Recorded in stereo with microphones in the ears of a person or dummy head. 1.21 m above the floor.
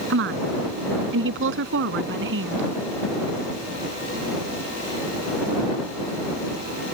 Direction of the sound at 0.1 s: 75° right (ahead or behind).